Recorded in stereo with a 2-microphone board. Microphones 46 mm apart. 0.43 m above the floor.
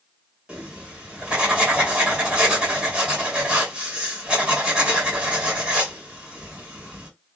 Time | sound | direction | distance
0.5 | writing | 25° right (ahead or behind) | 2 m